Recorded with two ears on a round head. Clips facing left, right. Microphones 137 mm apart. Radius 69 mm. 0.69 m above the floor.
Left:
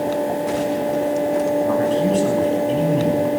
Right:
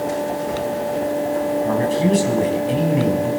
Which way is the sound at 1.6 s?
10° right (ahead or behind).